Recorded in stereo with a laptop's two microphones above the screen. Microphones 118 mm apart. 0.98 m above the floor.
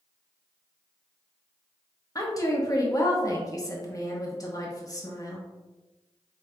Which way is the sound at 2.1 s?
30° left (ahead or behind).